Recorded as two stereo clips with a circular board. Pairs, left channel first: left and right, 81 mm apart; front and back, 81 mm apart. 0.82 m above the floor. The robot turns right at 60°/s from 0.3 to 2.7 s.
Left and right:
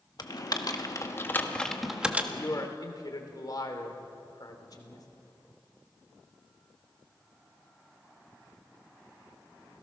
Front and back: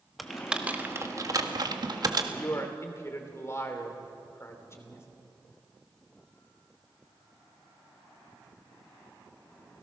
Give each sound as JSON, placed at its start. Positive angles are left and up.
{"t": 0.2, "sound": "typing on a keyboard", "azimuth_deg": 90, "distance_m": 1.4}
{"t": 2.3, "sound": "a man speaking", "azimuth_deg": 35, "distance_m": 3.0}